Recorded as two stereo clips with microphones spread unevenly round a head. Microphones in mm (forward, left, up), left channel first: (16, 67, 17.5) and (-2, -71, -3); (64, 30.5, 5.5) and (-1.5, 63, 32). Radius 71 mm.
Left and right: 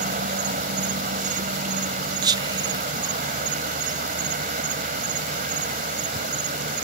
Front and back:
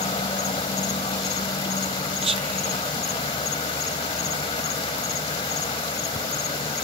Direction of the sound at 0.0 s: 60° right.